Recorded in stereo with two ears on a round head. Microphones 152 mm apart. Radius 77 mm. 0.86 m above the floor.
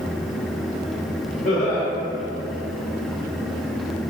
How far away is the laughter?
About 1.4 m.